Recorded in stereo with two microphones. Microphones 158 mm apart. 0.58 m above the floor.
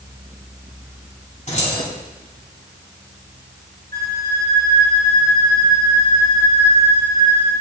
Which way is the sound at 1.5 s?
50° left (ahead or behind).